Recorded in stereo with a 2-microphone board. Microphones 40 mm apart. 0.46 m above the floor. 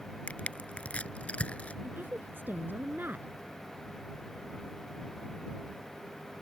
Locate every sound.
0.3 s crushing: 30° left (ahead or behind)
1.8 s a woman speaking: 55° right (ahead or behind)